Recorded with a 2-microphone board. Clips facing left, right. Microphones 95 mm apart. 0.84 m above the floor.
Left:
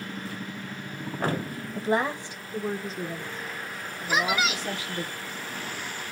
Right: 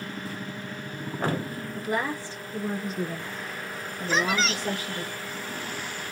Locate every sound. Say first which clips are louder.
1.7 s a woman speaking: left 3 dB; 35° left (ahead or behind), 0.9 m; by 5.1 s 40° right (ahead or behind), 1.7 m
4.1 s a woman speaking: even; 10° left (ahead or behind), 0.5 m